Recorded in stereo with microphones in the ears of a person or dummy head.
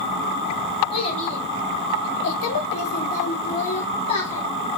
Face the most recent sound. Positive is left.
turn(degrees=20)  # may be behind; listen again after turning